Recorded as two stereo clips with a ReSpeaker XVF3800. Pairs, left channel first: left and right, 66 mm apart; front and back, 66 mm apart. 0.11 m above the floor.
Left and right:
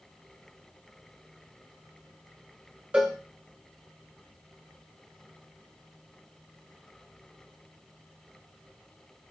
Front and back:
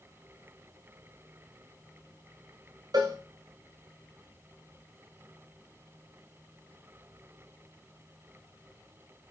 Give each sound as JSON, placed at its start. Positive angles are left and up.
{"t": 2.9, "sound": "a cowbell", "azimuth_deg": -165, "distance_m": 3.0}